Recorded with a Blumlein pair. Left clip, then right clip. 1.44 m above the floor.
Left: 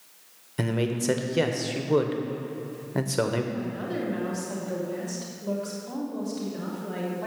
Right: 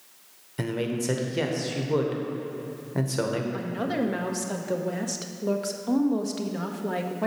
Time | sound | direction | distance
0.6 | a man speaking | 10° left | 1.0 m
3.5 | a woman speaking | 65° right | 1.1 m